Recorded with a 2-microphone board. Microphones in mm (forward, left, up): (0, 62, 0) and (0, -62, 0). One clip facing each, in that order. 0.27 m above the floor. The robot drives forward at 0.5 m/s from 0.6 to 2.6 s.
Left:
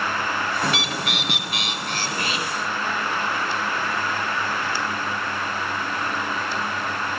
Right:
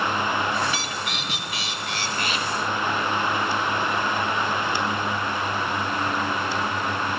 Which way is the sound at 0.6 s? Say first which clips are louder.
Left 3 dB; 55° left (ahead or behind).